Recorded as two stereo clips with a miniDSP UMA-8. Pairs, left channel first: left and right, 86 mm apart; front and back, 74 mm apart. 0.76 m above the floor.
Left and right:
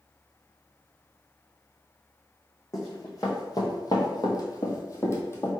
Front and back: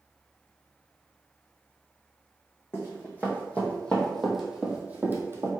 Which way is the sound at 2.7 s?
50° left.